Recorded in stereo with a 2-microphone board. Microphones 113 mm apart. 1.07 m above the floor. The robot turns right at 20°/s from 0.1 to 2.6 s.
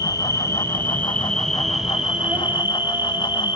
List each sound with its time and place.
0.0 s an insect: 150° left, 2.5 m; by 3.6 s 160° right, 2.5 m